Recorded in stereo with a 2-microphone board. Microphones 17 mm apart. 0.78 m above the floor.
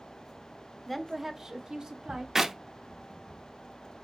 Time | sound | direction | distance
0.9 | a woman speaking | 20° left (ahead or behind) | 0.6 m
2.4 | a clap | 25° right (ahead or behind) | 0.6 m